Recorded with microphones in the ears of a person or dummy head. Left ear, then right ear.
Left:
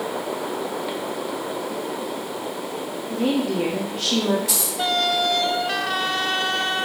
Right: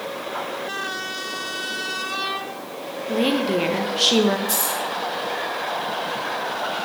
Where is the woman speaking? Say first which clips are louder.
Right 3 dB; 30° right (ahead or behind), 0.5 m.